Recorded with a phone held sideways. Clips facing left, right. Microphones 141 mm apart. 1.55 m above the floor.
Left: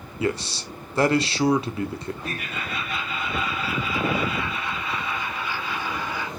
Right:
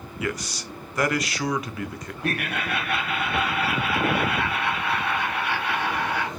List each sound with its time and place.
0.2 s a man speaking: 30° left (ahead or behind), 0.5 m
2.2 s laughter: 65° right (ahead or behind), 0.7 m